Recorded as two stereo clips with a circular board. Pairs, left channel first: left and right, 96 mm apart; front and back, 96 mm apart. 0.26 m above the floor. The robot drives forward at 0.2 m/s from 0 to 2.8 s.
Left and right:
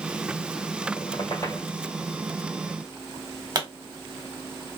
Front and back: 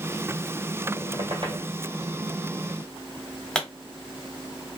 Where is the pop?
75° right, 1.0 m.